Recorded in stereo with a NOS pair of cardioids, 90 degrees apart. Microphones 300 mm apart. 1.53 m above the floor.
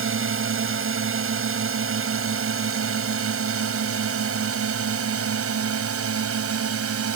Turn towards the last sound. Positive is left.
turn(degrees=-50)